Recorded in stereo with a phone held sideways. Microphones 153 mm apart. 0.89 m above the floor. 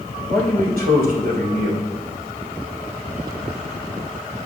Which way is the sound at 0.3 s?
75° right (ahead or behind).